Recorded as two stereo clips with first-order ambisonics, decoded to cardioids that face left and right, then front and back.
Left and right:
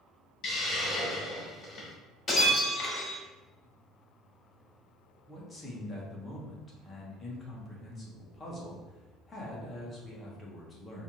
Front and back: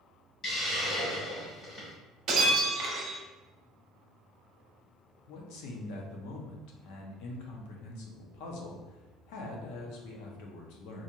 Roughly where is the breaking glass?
Behind left.